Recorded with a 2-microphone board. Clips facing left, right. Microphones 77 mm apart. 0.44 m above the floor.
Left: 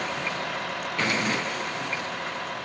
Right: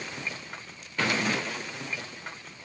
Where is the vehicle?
70° left (ahead or behind).